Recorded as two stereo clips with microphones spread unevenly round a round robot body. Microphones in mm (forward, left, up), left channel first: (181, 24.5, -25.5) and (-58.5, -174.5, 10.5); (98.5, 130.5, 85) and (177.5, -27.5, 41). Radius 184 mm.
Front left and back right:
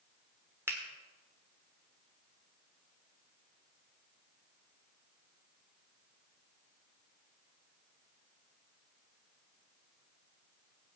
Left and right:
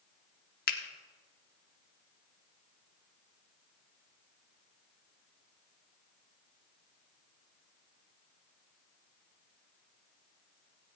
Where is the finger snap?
130° left, 1.1 m.